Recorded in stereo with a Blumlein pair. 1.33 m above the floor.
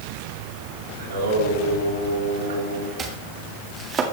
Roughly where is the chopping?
Ahead right.